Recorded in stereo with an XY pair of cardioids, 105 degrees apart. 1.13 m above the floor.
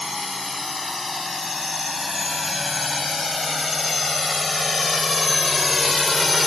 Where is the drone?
20° left; by 6.5 s 30° left.